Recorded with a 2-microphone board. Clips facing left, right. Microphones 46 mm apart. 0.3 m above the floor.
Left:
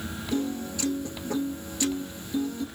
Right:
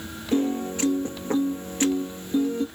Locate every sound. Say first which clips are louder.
0.3 s a piano: right 6 dB; 40° right (ahead or behind), 1.1 m